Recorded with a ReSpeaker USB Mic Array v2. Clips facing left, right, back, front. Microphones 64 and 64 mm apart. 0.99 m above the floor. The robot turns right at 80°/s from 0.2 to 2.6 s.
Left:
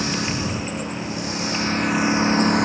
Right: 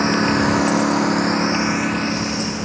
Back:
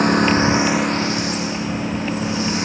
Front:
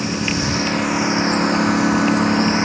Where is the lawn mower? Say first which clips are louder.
Right 8 dB, back 6 dB; 145° right; by 2.7 s 60° left.